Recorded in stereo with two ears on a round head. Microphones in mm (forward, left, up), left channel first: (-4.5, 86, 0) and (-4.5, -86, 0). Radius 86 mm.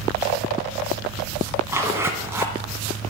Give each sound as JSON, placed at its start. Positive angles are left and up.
{"t": 1.7, "sound": "a zipper", "side_deg": -15, "distance_m": 1.7}